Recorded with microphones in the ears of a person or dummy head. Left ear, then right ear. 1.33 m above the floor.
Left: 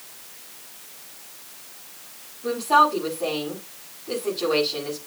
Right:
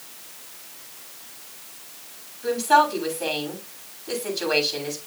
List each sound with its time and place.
2.4 s a woman speaking: 60° right (ahead or behind), 7.5 m